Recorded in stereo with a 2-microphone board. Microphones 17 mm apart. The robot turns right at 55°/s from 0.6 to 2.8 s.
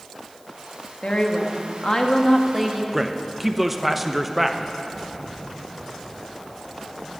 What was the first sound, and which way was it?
A woman speaking, 95° left.